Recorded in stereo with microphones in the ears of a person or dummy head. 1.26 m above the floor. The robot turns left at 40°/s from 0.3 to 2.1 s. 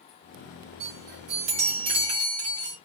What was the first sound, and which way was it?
A chime, 100° right.